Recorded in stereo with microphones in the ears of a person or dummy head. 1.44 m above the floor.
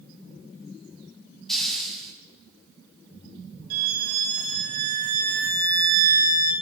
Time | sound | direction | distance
1.5 | a hiss | 5° left (ahead or behind) | 3 m
3.7 | a violin | 55° right (ahead or behind) | 2.5 m